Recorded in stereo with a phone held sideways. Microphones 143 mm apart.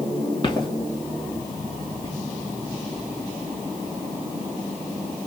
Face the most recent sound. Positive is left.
turn(degrees=40)  # may be behind; listen again after turning